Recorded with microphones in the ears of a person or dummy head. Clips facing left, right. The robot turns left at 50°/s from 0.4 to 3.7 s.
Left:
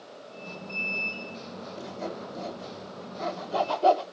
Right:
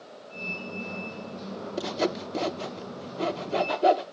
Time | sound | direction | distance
1.8 | sawing | 65° right (ahead or behind) | 0.7 m